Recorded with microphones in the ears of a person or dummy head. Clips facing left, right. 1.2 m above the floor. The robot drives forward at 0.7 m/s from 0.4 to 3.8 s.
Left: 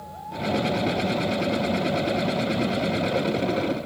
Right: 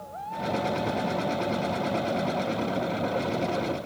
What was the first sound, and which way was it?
Only background noise.